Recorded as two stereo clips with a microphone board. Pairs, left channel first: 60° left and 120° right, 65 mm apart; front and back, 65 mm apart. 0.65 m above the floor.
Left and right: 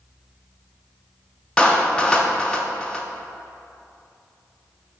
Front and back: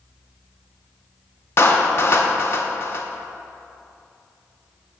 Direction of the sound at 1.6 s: 5° right.